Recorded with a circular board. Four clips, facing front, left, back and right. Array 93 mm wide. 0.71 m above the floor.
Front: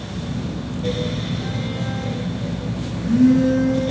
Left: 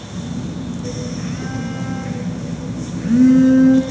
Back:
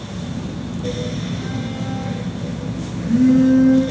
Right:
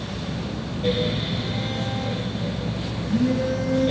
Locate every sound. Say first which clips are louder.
0.1 s a phone buzzing: left 6 dB, even; 90° left, 7.5 m